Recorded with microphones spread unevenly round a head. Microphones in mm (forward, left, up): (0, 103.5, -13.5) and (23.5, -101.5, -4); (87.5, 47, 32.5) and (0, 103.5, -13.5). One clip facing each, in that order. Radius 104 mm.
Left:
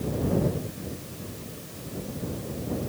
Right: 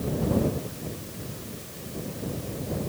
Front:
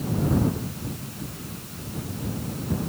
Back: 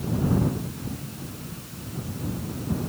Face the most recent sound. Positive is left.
No sound to turn to.